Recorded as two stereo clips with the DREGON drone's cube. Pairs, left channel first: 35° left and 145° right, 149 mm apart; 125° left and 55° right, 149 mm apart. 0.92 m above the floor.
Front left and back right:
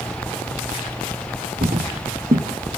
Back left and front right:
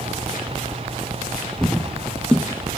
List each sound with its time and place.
1.6 s footsteps: 145° right, 2 m